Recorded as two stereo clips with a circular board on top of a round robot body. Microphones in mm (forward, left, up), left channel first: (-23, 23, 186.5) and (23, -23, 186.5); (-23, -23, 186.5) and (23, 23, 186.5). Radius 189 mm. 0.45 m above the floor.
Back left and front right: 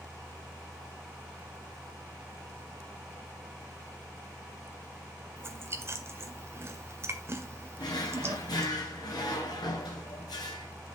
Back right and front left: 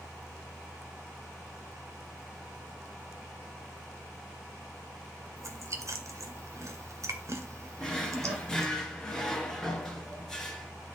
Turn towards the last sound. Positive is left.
turn(degrees=140)